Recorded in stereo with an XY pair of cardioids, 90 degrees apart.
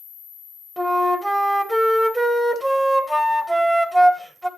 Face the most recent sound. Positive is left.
turn(degrees=-5)